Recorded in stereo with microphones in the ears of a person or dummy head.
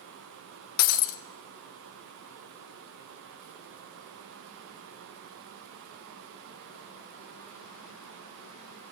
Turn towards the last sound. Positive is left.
turn(degrees=55)  # may be behind; listen again after turning